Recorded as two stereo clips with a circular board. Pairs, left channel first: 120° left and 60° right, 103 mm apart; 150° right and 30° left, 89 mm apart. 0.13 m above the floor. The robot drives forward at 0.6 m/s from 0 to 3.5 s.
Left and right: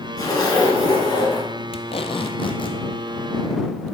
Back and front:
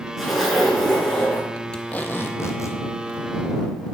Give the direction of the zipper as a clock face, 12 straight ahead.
8 o'clock.